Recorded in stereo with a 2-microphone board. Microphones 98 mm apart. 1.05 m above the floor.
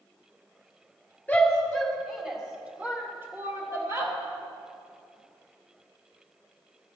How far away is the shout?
About 2.5 m.